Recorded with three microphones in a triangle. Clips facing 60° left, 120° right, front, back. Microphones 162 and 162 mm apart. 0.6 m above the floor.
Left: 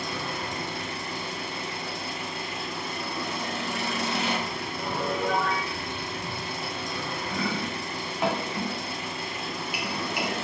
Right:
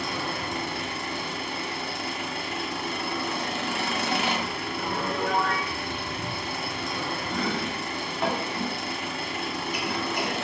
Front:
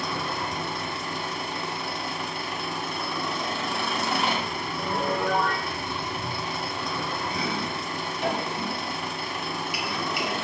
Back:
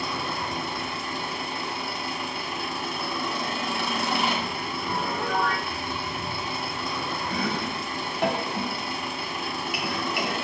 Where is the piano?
20° right, 3 m.